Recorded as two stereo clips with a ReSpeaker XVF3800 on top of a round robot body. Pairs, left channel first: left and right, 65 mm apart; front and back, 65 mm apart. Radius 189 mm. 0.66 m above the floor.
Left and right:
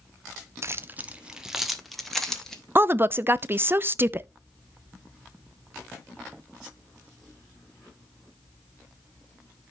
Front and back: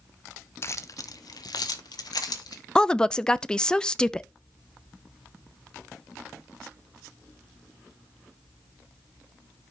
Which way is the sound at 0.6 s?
45° right.